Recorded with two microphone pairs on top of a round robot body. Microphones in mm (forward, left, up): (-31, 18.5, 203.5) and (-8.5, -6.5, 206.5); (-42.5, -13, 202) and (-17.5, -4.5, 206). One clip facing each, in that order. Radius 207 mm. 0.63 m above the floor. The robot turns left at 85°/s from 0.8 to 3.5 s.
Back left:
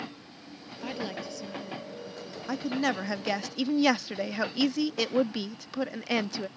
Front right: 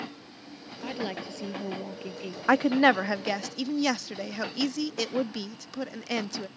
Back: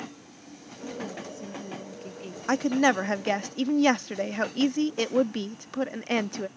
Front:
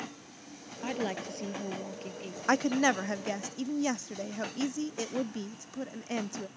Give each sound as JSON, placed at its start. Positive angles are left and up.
{"t": 0.8, "sound": "a woman speaking", "azimuth_deg": 50}
{"t": 2.5, "sound": "a woman speaking", "azimuth_deg": -70}